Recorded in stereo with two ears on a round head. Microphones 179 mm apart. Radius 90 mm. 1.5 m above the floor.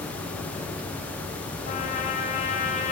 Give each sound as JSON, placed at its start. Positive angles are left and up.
{"t": 1.7, "sound": "a trumpet", "side_deg": 35, "distance_m": 1.4}